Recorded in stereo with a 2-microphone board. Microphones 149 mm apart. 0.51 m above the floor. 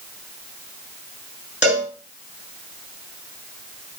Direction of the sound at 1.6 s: 10° right (ahead or behind).